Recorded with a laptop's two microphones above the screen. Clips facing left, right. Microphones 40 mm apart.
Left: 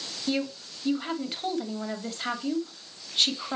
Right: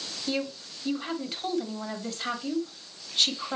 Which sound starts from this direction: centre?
A woman speaking, at 0.3 s.